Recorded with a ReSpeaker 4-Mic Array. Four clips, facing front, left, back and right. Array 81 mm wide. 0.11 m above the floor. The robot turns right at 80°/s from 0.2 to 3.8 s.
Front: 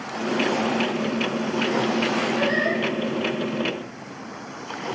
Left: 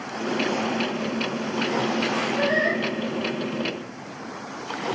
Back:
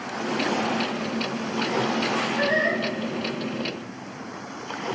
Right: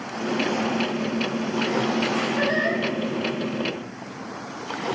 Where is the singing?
115° right, 3.5 m; by 2.8 s 80° right, 3.5 m.